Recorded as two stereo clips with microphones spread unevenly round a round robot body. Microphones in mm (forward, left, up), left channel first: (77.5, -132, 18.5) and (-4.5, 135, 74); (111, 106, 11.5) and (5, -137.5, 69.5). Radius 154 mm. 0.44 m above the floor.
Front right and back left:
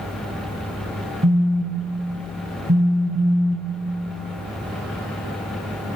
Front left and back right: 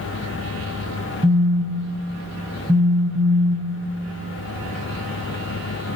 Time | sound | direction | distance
1.2 | a phone buzzing | 170° left | 0.9 m